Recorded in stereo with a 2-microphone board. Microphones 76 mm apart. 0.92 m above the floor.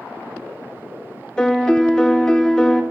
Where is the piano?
10° left (ahead or behind), 0.5 m.